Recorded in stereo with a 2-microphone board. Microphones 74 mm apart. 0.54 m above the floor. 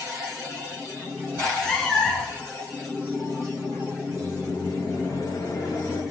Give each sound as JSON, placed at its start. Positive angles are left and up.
{"t": 1.4, "sound": "a cat meowing", "side_deg": 5, "distance_m": 2.5}
{"t": 4.1, "sound": "a microwave", "side_deg": 60, "distance_m": 3.0}